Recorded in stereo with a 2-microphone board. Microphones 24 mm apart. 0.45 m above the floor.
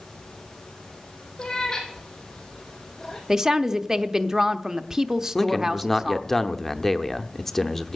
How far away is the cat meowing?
About 3.5 m.